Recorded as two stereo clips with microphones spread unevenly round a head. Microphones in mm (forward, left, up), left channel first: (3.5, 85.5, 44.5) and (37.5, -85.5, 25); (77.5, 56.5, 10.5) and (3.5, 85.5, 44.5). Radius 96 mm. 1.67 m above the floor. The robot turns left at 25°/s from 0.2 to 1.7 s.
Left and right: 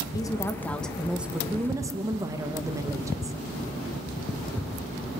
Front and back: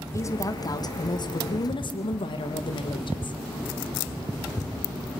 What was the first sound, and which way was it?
A woman speaking, 30° left.